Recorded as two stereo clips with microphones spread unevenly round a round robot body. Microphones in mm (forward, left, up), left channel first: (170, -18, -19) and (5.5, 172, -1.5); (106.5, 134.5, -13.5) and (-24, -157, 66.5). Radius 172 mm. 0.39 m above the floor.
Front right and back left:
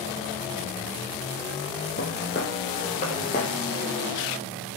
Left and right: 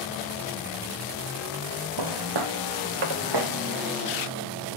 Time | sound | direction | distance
2.0 | footsteps | 110° right | 2.5 m